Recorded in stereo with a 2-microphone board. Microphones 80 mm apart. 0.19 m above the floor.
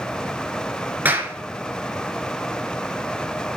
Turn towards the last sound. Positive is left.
turn(degrees=-25)  # may be behind; listen again after turning